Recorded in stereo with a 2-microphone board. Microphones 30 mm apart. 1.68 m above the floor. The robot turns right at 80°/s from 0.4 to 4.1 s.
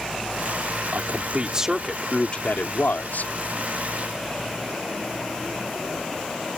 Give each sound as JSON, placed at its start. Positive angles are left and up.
{"t": 0.9, "sound": "a man speaking", "azimuth_deg": -80}